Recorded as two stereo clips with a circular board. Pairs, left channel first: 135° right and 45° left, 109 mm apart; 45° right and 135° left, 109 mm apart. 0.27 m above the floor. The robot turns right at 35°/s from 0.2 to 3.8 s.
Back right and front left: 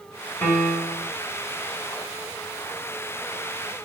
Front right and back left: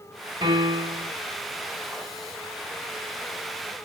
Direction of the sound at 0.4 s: 160° left.